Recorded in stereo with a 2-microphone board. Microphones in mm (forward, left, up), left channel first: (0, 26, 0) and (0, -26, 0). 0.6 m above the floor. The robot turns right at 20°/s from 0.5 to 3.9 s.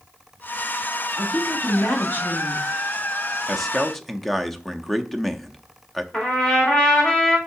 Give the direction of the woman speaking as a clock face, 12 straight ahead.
10 o'clock.